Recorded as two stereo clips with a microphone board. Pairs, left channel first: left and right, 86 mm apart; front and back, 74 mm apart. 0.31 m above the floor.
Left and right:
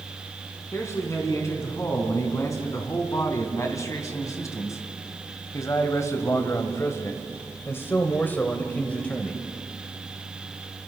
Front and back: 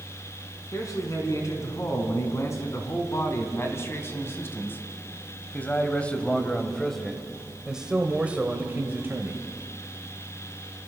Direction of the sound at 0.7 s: 40° left.